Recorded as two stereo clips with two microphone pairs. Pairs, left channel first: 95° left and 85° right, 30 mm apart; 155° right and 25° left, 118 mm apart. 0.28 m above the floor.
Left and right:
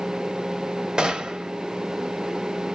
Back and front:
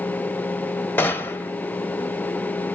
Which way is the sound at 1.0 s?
105° right.